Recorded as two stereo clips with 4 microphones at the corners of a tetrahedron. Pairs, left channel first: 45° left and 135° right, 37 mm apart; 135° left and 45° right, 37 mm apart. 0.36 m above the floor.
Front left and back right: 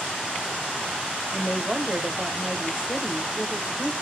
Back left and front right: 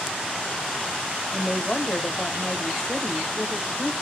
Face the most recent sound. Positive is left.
turn(degrees=-175)